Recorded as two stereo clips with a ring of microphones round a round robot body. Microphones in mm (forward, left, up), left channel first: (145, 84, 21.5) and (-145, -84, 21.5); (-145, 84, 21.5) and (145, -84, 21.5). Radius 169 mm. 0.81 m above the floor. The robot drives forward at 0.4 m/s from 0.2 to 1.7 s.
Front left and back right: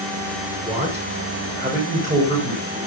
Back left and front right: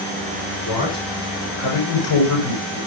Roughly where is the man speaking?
Behind left.